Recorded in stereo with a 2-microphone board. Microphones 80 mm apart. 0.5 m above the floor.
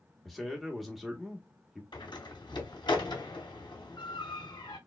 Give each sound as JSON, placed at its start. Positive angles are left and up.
{"t": 0.2, "sound": "a man speaking", "side_deg": 0, "distance_m": 1.0}
{"t": 1.9, "sound": "a door slam", "side_deg": 70, "distance_m": 1.9}